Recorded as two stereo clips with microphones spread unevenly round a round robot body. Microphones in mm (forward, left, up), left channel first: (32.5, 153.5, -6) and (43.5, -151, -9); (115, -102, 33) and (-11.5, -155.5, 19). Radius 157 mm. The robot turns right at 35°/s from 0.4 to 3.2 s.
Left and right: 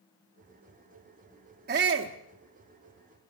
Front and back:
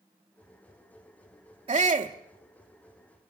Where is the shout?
145° right, 0.8 m; by 2.1 s 125° right, 0.8 m.